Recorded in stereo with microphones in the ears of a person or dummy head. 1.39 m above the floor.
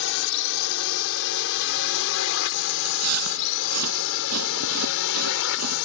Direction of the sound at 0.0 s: 65° left (ahead or behind).